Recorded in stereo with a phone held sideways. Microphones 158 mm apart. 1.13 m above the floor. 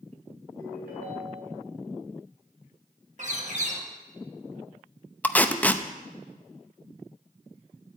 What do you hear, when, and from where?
0.6 s a ringtone: 80° right, 4 m
3.2 s a bird: 55° right (ahead or behind), 1.7 m
5.2 s tape being pulled: 10° left (ahead or behind), 0.5 m